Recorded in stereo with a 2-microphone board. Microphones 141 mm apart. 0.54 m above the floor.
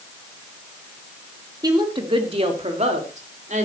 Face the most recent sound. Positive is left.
turn(degrees=-60)  # may be behind; listen again after turning